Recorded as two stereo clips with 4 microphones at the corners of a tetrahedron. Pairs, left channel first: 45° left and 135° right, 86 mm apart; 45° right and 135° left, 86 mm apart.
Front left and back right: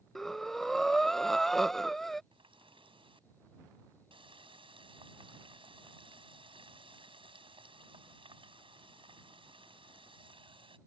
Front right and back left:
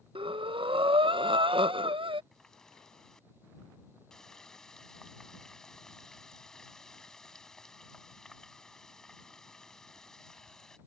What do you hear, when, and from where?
0.1 s breathing: 130° left
2.3 s a running tap: 130° right